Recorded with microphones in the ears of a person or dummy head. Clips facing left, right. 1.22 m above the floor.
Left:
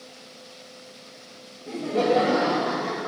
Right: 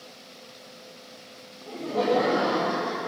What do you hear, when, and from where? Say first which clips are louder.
1.7 s laughter: left 2 dB; 25° left (ahead or behind), 0.8 m; by 3.1 s 40° left (ahead or behind), 1.9 m